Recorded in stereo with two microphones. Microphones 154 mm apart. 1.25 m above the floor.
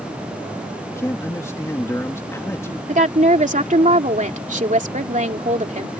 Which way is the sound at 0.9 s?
20° left (ahead or behind).